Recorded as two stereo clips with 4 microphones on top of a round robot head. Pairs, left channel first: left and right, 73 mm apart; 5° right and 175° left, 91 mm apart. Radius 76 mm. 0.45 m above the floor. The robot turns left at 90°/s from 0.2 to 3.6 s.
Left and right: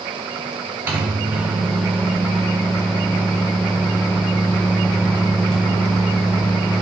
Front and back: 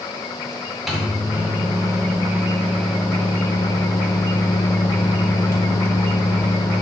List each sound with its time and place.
0.9 s a microwave: 100° right, 0.6 m; by 6.8 s 15° left, 0.6 m